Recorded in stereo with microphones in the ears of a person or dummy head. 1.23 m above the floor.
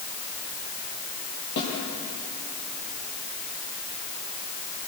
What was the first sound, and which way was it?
A snare drum, 65° left (ahead or behind).